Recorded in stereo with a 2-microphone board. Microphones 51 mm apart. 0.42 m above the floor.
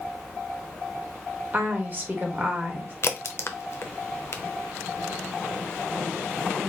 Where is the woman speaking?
40° right (ahead or behind), 1.3 m.